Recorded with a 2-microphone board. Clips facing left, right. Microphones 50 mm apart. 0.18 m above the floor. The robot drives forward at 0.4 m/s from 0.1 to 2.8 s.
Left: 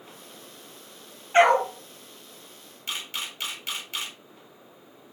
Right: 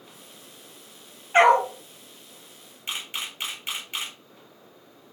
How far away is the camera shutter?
About 1.0 m.